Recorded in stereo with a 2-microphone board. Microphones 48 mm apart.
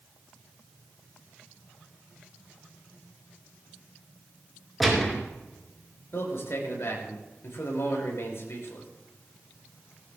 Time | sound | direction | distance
4.8 | a gunshot | centre (ahead or behind) | 3.5 m
6.1 | a man speaking | 65° left (ahead or behind) | 5 m